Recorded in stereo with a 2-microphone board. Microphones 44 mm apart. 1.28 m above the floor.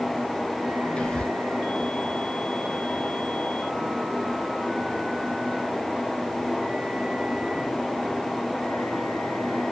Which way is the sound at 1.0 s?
25° left (ahead or behind).